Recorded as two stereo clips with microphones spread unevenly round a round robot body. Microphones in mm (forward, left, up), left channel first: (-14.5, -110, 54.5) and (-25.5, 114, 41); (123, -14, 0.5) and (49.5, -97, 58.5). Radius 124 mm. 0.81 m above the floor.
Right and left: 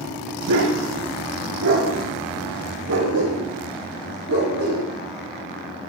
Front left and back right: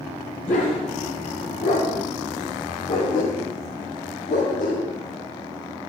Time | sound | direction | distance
0.5 | a dog barking | 100° left | 5 m